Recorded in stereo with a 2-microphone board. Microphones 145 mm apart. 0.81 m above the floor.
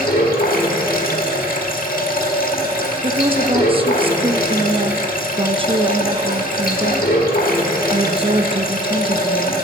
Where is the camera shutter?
No camera shutter in this recording.